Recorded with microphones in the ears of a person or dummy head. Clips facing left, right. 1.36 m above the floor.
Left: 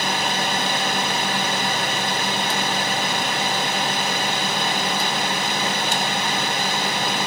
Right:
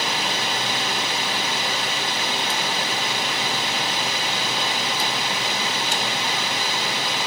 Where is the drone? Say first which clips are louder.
Left 3 dB; 35° left (ahead or behind).